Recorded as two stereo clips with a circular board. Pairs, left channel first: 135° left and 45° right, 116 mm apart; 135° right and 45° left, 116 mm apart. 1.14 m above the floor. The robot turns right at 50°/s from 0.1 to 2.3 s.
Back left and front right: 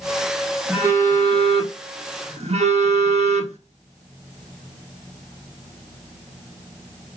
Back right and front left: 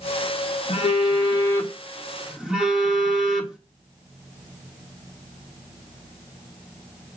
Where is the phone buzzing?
115° right, 1.0 m; by 3.6 s 35° right, 1.0 m.